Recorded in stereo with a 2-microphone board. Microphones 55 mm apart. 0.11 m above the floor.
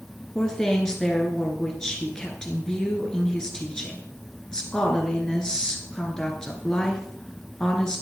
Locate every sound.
0.3 s a woman speaking: 10° left (ahead or behind), 1.6 m